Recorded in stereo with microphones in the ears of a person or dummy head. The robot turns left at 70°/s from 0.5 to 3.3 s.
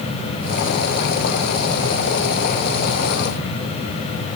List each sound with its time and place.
Only background noise.